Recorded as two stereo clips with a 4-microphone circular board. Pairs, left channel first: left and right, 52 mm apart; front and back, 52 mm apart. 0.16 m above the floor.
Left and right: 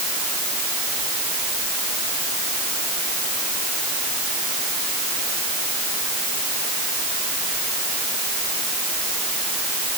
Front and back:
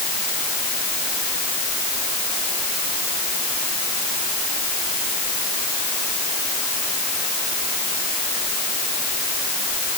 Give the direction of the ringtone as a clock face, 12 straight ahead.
No ringtone in this recording.